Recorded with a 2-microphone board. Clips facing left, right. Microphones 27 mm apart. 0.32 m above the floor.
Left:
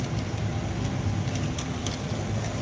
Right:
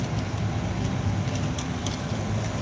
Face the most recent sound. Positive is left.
turn(degrees=-70)  # may be behind; listen again after turning